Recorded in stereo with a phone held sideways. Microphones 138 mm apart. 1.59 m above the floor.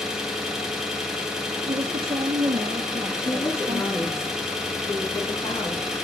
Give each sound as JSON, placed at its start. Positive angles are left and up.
{"t": 0.0, "sound": "an engine running", "side_deg": -5, "distance_m": 1.4}
{"t": 1.7, "sound": "a woman speaking", "side_deg": -45, "distance_m": 0.8}
{"t": 3.2, "sound": "a woman speaking", "side_deg": 25, "distance_m": 3.0}